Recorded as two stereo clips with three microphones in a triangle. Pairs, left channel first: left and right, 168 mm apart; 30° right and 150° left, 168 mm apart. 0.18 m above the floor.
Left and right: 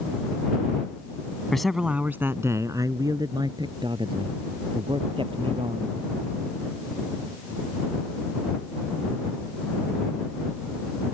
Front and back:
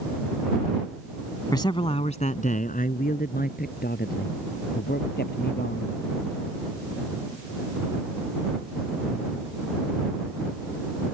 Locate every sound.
1.5 s a man speaking: 5° left; by 5.9 s 35° right